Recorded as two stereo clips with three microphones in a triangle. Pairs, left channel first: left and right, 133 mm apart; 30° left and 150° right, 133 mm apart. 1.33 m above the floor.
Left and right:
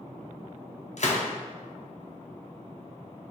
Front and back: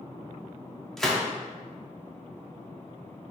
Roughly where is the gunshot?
Behind left.